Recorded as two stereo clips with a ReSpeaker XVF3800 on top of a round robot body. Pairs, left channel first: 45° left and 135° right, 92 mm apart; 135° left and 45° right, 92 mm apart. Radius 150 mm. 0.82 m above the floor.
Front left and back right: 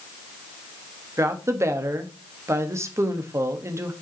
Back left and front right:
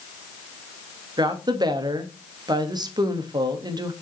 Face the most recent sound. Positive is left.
turn(degrees=-80)